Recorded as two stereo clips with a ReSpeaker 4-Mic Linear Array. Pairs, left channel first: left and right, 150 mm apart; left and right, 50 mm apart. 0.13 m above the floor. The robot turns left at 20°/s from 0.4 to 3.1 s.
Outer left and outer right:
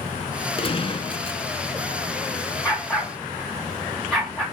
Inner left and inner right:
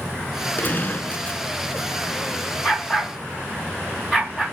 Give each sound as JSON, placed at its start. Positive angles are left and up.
{"t": 0.6, "sound": "a gunshot", "side_deg": 40, "distance_m": 0.7}
{"t": 2.6, "sound": "a dog barking", "side_deg": 15, "distance_m": 5.0}